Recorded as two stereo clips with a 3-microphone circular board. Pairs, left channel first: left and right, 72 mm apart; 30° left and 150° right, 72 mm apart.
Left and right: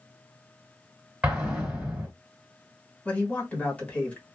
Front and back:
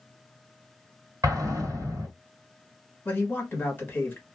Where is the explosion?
160° right, 1.7 m.